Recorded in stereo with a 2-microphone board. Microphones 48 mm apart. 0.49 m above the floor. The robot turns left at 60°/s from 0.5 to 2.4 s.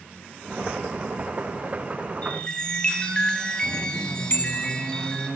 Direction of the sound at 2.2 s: 30° left (ahead or behind).